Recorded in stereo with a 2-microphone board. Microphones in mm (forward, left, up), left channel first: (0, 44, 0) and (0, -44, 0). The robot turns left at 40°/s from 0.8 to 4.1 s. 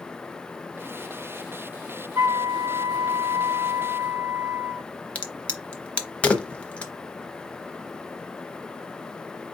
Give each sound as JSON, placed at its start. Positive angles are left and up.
{"t": 2.1, "sound": "a flute", "azimuth_deg": -25, "distance_m": 1.9}
{"t": 5.2, "sound": "a crack", "side_deg": 10, "distance_m": 0.8}